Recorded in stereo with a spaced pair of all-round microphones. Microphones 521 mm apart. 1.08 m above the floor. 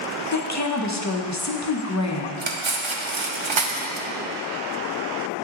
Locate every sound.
0.3 s a woman speaking: 35° left (ahead or behind), 0.7 m
2.4 s cutlery clinking: 60° right (ahead or behind), 0.7 m